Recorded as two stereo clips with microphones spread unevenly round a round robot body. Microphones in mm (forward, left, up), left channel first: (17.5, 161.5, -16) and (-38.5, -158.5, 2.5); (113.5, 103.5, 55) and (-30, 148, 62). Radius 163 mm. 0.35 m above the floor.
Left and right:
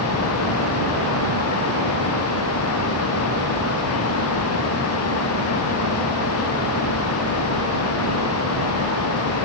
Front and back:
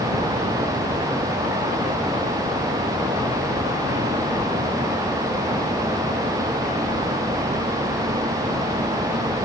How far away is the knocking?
I don't hear knocking.